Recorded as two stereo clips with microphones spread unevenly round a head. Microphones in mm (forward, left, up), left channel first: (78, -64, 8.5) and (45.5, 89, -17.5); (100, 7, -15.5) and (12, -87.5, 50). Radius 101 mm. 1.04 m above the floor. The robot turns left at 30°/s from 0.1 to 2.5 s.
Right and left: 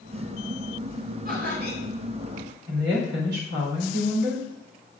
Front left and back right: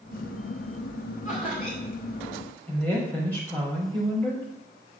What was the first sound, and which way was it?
Laughter, 150° left.